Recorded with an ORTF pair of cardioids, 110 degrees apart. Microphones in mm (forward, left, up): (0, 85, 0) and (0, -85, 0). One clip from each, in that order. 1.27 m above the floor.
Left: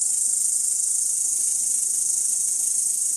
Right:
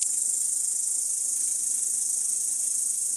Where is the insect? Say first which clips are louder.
Left 4 dB; 30° left, 1.1 m.